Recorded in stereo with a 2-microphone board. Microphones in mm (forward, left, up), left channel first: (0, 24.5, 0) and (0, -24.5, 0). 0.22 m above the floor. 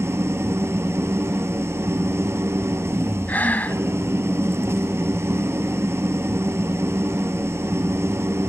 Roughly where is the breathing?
Left.